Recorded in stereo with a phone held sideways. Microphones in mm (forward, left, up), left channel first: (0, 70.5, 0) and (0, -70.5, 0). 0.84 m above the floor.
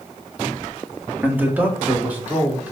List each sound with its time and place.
1.2 s a man speaking: 15° right (ahead or behind), 1.4 m; by 2.7 s 10° right (ahead or behind), 2.5 m